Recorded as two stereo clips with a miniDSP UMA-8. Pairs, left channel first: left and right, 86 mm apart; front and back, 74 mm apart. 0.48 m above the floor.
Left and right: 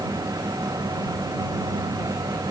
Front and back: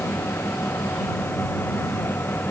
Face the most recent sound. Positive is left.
No sound to turn to.